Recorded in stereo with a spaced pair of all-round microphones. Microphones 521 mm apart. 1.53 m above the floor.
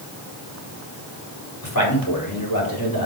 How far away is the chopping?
No chopping in this recording.